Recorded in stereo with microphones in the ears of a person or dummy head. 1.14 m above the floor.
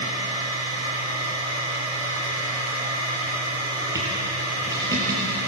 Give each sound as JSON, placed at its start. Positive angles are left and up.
{"t": 0.0, "sound": "a machine running", "side_deg": -20, "distance_m": 7.5}